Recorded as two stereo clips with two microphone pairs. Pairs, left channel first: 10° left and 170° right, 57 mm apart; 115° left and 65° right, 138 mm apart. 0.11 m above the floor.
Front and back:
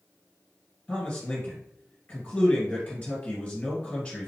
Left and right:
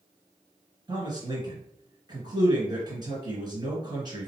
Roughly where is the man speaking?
Ahead right.